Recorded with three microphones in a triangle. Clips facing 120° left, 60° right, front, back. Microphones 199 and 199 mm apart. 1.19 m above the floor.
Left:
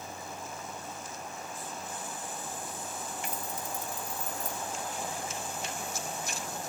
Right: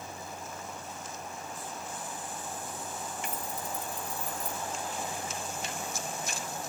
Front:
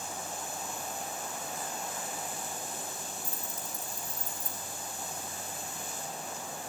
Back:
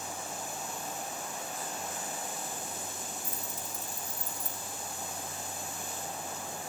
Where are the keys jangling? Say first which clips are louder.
Right 1 dB, even; 165° left, 3.5 m.